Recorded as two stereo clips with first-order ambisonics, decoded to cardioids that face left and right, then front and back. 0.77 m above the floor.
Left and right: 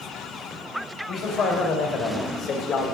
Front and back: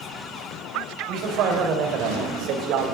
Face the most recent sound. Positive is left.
turn(degrees=145)